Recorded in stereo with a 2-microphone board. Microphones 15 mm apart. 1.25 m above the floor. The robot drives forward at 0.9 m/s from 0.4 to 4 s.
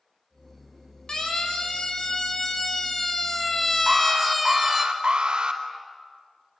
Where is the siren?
35° left (ahead or behind), 5 m; by 4.9 s 10° right (ahead or behind), 2.5 m.